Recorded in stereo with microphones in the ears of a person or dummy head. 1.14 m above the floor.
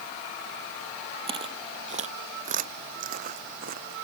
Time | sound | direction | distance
1.3 | footsteps | 25° right (ahead or behind) | ?